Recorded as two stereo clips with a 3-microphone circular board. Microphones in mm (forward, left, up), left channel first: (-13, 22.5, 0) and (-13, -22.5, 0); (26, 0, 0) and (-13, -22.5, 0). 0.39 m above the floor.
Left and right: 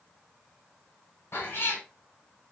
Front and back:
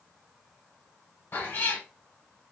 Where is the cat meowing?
65° left, 1.2 m.